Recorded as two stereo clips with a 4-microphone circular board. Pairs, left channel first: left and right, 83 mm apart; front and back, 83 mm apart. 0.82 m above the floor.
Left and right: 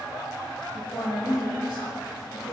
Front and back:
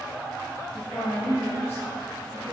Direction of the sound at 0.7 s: 60° left.